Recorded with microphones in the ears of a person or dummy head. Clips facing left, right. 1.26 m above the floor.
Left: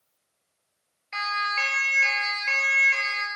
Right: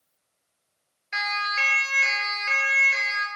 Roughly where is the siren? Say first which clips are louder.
Even; right.